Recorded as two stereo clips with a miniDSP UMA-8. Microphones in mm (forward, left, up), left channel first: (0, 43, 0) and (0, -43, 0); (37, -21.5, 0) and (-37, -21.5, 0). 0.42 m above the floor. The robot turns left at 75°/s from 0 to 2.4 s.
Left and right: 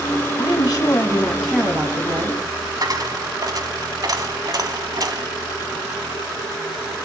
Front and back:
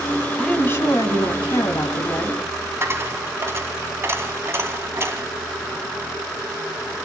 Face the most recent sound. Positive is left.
turn(degrees=-130)